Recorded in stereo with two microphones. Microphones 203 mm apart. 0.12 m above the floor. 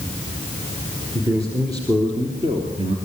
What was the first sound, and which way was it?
A man speaking, 15° right (ahead or behind).